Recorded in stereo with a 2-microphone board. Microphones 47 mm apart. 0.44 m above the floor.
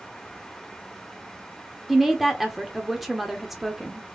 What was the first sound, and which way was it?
A woman speaking, 5° right (ahead or behind).